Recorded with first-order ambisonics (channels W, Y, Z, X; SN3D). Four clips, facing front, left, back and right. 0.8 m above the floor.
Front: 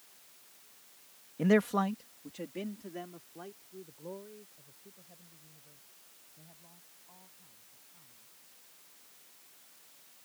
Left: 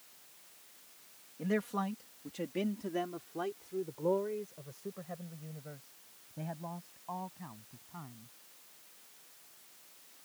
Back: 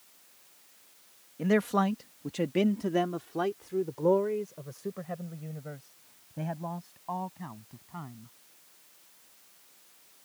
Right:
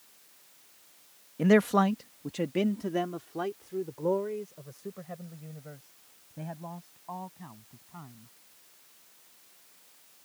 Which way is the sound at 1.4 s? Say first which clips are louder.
Right 12 dB, back 1 dB; 75° right.